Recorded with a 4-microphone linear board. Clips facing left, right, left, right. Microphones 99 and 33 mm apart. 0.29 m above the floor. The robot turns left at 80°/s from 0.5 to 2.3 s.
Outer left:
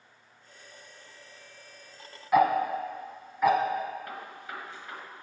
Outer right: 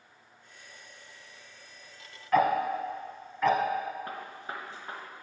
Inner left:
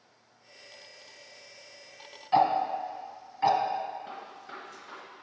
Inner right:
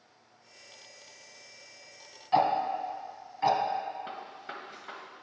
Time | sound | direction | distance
2.3 | ticking | 10° left (ahead or behind) | 0.7 m
4.1 | a gunshot | 30° right (ahead or behind) | 1.1 m